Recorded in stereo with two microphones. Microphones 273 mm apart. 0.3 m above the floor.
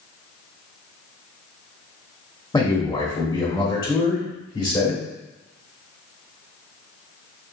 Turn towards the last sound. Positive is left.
turn(degrees=15)  # may be behind; listen again after turning